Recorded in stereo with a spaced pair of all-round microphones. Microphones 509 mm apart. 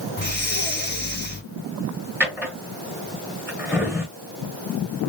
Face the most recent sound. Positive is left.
turn(degrees=-5)  # may be behind; listen again after turning